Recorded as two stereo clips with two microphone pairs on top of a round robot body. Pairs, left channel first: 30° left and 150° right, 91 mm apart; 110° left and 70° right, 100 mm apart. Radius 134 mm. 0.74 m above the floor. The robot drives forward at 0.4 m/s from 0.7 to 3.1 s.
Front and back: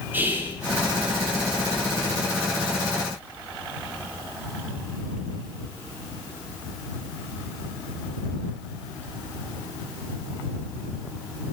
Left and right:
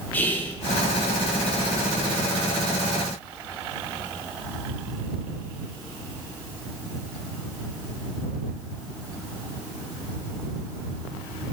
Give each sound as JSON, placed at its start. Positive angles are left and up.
{"t": 0.1, "sound": "whispering", "azimuth_deg": 135, "distance_m": 0.7}